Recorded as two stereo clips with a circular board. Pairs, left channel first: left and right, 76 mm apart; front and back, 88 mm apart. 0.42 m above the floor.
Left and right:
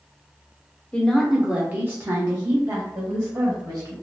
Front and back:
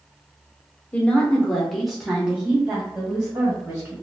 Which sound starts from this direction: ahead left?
A woman speaking, at 0.9 s.